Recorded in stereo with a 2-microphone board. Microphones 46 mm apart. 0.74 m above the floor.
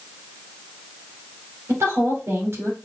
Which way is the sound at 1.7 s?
70° right (ahead or behind).